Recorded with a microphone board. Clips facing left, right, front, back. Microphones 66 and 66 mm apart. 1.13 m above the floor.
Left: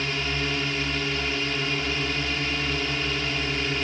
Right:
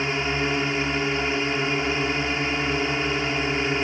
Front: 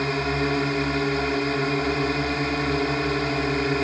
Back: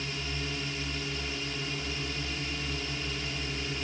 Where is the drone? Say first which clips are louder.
Right 4 dB, front 13 dB; 25° right.